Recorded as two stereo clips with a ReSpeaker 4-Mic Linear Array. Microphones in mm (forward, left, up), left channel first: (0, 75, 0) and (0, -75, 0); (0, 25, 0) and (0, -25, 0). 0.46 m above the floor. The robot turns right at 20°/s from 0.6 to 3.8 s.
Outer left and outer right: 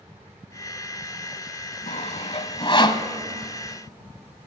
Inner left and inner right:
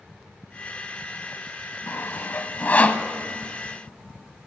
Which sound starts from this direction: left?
Sawing, at 1.9 s.